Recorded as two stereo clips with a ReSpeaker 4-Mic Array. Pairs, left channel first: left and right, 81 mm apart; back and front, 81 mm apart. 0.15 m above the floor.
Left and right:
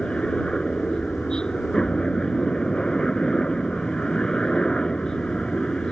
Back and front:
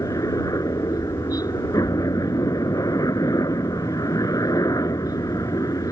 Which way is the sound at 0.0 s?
165° left.